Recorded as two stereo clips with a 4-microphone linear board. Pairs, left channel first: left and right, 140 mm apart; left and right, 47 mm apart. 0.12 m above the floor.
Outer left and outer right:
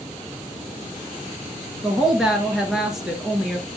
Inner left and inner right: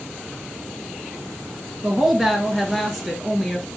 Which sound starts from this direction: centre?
A woman speaking, at 1.8 s.